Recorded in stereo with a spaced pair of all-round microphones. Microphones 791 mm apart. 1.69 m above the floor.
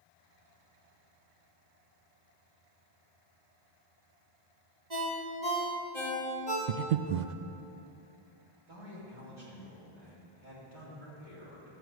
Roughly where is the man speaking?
Right.